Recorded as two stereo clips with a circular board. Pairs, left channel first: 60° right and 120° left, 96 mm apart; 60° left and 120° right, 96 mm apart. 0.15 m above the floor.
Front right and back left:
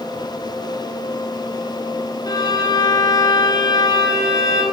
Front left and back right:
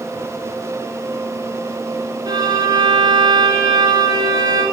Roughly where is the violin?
Right.